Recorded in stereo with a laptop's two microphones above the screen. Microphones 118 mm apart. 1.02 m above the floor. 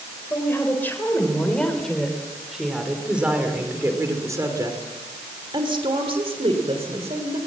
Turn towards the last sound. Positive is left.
turn(degrees=-65)  # may be behind; listen again after turning